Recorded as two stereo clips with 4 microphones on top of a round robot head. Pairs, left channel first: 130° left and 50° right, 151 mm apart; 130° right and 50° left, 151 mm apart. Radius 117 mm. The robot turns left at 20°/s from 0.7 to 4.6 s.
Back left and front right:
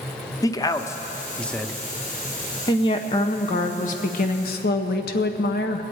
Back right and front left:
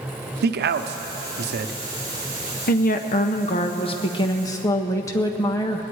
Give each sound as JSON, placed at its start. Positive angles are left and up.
{"t": 0.4, "sound": "a man speaking", "azimuth_deg": 65, "distance_m": 0.7}
{"t": 2.7, "sound": "a woman speaking", "azimuth_deg": -165, "distance_m": 0.6}